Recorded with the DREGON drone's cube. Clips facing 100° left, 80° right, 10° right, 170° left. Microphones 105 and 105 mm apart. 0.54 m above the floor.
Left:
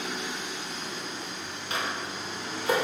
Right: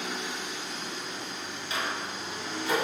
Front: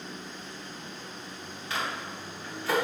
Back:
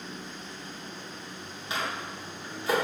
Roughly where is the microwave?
Left.